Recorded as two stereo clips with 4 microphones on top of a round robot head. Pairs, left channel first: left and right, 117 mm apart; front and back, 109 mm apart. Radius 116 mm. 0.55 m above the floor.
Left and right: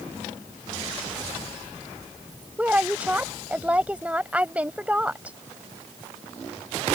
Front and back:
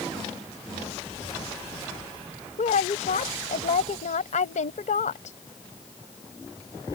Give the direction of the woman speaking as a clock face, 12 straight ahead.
12 o'clock.